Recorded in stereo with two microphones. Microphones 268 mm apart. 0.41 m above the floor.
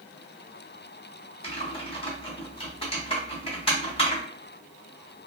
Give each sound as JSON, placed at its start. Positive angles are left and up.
{"t": 1.4, "sound": "typing on a keyboard", "side_deg": 20, "distance_m": 1.3}